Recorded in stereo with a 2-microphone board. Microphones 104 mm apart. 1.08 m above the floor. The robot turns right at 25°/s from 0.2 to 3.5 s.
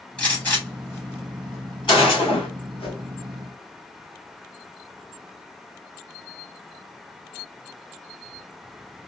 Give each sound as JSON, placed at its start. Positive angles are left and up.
{"t": 0.2, "sound": "a gunshot", "side_deg": 10, "distance_m": 2.5}
{"t": 2.8, "sound": "a whoosh", "side_deg": 65, "distance_m": 2.0}